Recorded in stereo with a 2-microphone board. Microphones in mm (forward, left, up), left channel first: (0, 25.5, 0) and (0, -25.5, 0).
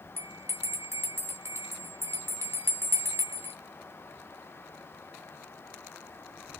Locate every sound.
0.2 s a bell: 55° right (ahead or behind), 1.2 m